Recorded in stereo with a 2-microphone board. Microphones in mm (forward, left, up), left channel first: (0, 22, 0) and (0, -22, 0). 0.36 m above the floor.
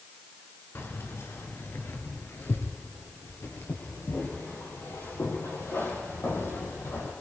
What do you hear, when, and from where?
0.8 s keys jangling: 70° left (ahead or behind), 2.5 m; by 7.1 s 85° left, 7.5 m